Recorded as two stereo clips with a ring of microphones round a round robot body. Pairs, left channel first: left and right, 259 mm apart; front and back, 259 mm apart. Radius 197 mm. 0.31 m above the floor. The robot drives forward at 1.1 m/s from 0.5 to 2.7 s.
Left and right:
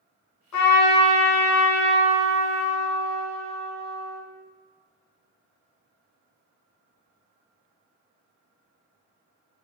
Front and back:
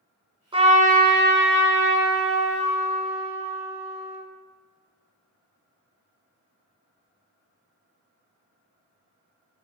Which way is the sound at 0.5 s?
110° left.